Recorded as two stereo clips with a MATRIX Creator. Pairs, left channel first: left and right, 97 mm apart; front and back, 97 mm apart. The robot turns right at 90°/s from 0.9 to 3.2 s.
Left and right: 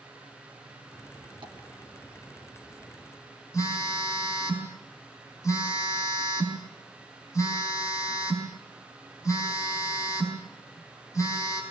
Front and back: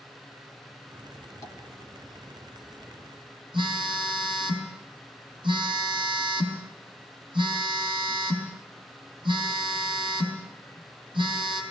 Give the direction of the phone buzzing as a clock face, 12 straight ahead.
7 o'clock.